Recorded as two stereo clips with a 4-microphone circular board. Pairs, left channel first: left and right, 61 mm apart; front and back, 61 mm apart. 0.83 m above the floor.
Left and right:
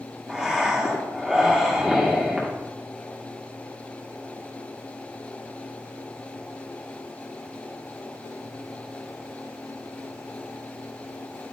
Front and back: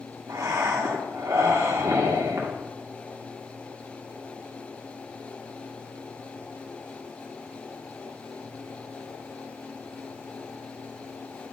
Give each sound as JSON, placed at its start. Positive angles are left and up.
{"t": 0.3, "sound": "breathing", "azimuth_deg": -165, "distance_m": 1.8}